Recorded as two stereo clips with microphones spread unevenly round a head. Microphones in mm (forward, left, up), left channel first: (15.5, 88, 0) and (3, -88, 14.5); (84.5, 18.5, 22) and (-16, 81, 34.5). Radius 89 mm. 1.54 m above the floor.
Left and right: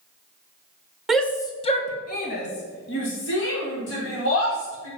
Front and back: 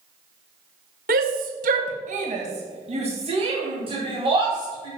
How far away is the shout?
About 1.3 m.